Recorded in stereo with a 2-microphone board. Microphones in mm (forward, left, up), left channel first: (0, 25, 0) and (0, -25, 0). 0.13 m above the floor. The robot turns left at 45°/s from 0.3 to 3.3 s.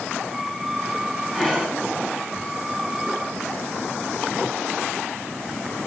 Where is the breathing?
5° right (ahead or behind), 2.5 m; by 1.8 s 25° right (ahead or behind), 2.5 m.